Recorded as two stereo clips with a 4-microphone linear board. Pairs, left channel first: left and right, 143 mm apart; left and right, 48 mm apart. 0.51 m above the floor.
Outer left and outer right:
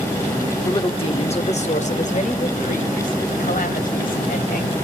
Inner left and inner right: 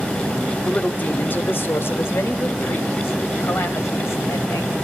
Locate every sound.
0.7 s a woman speaking: 30° left (ahead or behind), 1.2 m; by 4.8 s 75° left (ahead or behind), 3.5 m